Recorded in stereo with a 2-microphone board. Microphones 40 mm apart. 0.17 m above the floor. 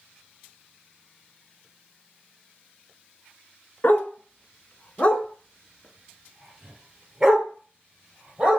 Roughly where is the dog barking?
Left.